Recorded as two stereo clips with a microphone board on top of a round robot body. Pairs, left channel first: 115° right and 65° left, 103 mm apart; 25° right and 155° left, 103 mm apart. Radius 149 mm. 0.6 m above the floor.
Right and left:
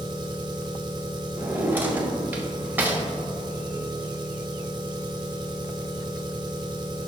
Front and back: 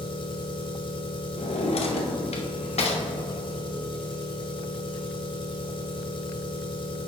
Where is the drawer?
5° right, 1.1 m.